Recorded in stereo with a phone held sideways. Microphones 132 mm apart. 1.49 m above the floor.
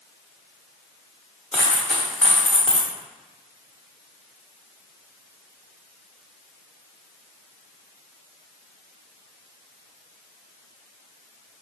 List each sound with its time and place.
1.5 s a dropped coin: 5° left (ahead or behind), 1.1 m